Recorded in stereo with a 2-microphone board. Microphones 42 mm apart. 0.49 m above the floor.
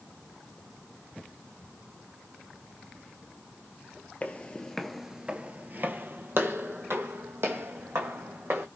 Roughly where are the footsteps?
Left.